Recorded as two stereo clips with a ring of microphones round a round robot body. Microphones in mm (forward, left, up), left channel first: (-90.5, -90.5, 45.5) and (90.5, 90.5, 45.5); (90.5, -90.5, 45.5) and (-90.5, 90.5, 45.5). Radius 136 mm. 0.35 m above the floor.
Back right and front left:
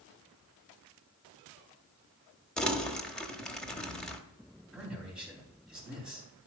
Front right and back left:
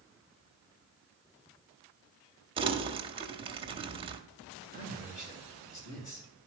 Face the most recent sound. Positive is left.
turn(degrees=-40)